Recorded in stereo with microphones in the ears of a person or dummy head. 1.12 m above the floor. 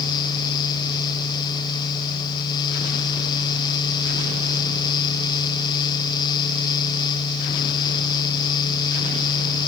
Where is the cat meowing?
No cat meowing in this recording.